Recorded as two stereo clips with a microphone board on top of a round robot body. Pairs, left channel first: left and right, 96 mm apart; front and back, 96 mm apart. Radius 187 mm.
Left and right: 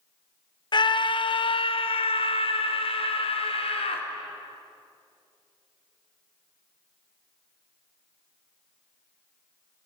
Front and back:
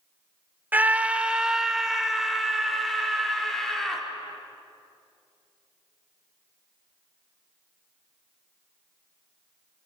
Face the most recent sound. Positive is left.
turn(degrees=85)